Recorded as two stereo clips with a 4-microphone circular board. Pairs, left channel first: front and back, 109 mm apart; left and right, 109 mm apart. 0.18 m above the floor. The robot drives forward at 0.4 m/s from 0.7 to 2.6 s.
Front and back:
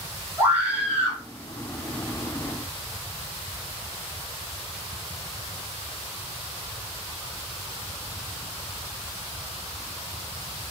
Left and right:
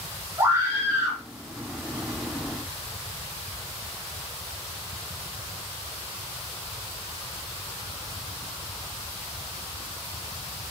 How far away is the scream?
About 1.3 m.